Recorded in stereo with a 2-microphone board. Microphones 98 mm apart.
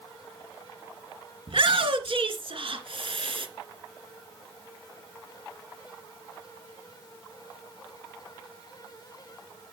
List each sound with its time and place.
1.5 s a shout: 65° right (ahead or behind), 2.5 m